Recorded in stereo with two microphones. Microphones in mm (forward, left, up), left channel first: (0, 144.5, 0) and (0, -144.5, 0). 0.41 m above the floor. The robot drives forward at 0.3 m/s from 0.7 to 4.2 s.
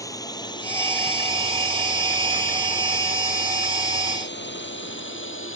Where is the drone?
10° left (ahead or behind); by 5.6 s 45° left (ahead or behind).